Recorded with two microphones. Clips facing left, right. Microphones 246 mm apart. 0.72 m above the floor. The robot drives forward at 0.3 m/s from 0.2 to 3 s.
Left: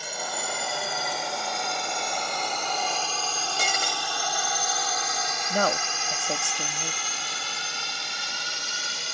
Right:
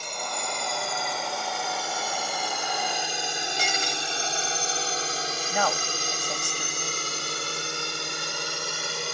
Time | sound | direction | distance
0.0 | a drone | 5° left (ahead or behind) | ?
3.6 | breaking glass | 55° left (ahead or behind) | ?
5.5 | a woman speaking | 40° left (ahead or behind) | ?